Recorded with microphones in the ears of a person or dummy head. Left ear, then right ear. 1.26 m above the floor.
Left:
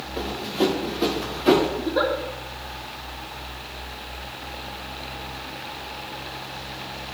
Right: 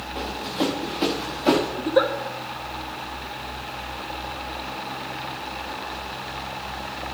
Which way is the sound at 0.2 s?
45° right (ahead or behind).